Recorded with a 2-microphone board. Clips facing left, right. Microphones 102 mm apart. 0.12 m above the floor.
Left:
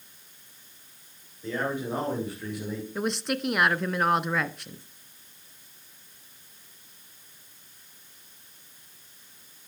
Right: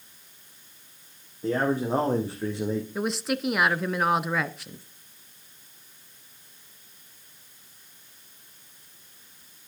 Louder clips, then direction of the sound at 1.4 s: Right 5 dB; 40° right (ahead or behind).